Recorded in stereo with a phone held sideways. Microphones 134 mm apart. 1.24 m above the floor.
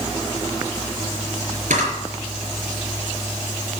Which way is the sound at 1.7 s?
80° right.